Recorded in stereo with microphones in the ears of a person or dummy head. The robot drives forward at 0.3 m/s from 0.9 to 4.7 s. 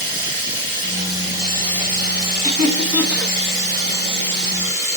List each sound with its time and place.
0.0 s running water: 10° right (ahead or behind), 4.5 m
2.4 s laughter: centre (ahead or behind), 2.5 m